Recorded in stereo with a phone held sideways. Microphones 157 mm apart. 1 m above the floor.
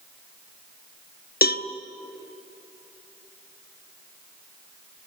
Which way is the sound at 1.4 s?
75° left (ahead or behind).